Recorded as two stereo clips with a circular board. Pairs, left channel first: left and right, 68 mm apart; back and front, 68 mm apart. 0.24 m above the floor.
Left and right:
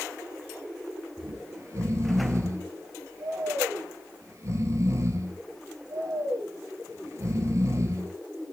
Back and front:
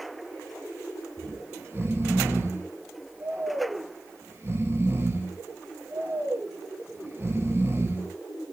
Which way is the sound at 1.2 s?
50° right.